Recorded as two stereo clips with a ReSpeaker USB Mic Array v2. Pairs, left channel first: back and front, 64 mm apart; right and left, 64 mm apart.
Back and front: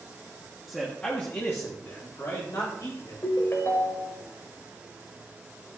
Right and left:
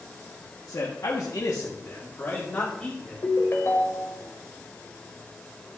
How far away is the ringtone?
About 1.4 m.